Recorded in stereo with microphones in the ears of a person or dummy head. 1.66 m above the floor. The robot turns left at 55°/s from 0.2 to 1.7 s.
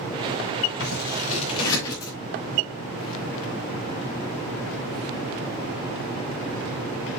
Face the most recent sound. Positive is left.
turn(degrees=20)  # may be behind; listen again after turning